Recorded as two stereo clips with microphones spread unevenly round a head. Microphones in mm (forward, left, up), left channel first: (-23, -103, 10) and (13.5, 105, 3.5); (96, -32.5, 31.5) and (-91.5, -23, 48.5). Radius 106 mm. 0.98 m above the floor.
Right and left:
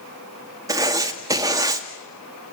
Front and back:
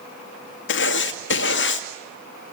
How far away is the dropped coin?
I don't hear a dropped coin.